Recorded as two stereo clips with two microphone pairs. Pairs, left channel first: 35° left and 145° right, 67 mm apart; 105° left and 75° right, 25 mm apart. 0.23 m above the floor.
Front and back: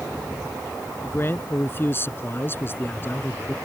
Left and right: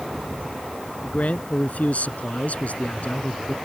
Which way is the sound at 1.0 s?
85° left.